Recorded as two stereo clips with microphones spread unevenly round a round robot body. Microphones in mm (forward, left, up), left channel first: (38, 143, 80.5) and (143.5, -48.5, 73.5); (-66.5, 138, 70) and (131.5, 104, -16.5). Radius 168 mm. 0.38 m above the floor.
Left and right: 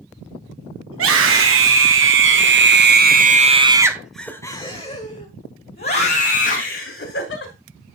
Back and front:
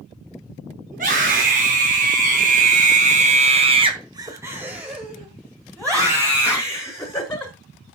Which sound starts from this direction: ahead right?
A scream, at 0.9 s.